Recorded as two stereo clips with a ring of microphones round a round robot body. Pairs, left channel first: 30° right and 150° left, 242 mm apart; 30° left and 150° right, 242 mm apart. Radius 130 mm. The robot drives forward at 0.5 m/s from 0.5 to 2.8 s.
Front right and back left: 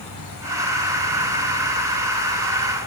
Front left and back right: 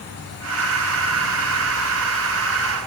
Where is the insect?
15° right, 1.6 m; by 2.9 s 55° right, 0.8 m.